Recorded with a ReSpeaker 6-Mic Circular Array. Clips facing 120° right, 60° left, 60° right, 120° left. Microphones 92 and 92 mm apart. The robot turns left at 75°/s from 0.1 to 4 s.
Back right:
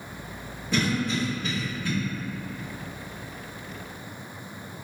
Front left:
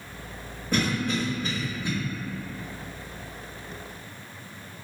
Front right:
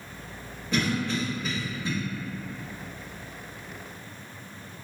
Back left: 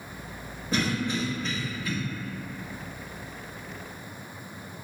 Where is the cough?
80° left, 0.9 m; by 1.9 s 10° right, 0.9 m.